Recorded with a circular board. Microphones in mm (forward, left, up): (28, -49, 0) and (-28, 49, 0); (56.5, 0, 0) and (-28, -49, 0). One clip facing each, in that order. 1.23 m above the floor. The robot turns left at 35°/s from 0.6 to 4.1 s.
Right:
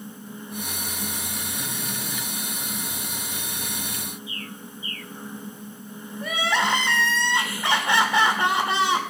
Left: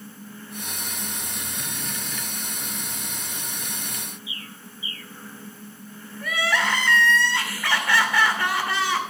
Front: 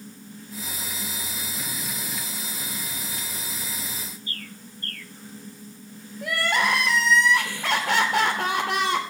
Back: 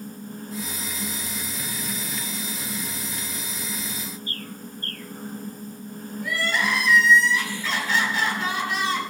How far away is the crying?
About 2.5 m.